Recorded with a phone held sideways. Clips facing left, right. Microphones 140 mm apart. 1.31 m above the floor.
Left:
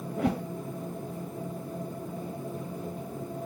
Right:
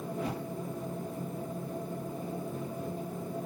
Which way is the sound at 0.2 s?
75° left (ahead or behind).